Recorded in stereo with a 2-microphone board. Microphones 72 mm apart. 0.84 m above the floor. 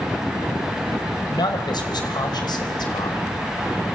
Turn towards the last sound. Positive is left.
turn(degrees=70)  # may be behind; listen again after turning